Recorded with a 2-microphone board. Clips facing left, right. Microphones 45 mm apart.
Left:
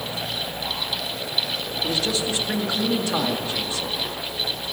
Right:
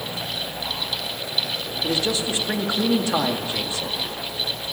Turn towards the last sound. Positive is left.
turn(degrees=-15)  # may be behind; listen again after turning